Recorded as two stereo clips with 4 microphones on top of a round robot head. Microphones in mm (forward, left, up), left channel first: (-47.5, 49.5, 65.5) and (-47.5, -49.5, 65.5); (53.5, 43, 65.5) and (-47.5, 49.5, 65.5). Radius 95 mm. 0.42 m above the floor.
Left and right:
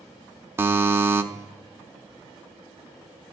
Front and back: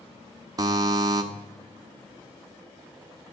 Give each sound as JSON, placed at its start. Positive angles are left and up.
{"t": 0.6, "sound": "a buzzer", "azimuth_deg": -150, "distance_m": 0.8}